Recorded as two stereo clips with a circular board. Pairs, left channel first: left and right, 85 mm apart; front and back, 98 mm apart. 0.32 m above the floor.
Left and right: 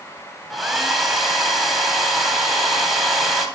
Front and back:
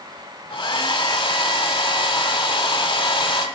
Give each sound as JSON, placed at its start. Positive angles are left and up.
{"t": 0.5, "sound": "a hair dryer", "azimuth_deg": 0, "distance_m": 1.4}